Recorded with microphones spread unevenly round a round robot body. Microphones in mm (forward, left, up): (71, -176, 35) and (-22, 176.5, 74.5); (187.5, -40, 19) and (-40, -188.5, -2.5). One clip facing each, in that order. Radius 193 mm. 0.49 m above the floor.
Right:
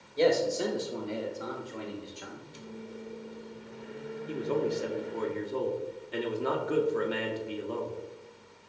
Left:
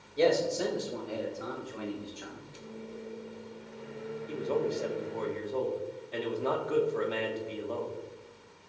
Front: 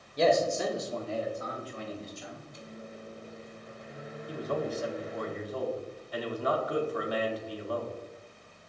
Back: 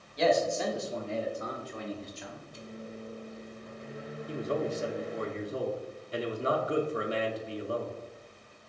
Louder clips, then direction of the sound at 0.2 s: Right 1 dB, front 1 dB; straight ahead.